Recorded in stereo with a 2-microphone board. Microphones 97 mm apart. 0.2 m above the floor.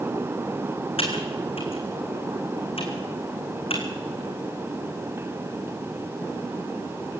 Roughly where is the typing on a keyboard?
Left.